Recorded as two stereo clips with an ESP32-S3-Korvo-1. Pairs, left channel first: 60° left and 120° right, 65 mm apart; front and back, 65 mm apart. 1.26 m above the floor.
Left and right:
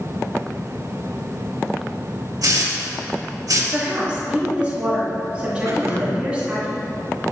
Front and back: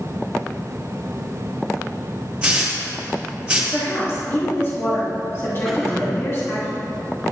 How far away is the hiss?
About 2 m.